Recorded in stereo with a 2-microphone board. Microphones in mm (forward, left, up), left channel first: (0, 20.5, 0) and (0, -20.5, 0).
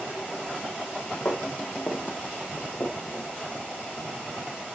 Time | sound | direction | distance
1.2 | footsteps | 75° left (ahead or behind) | 2 m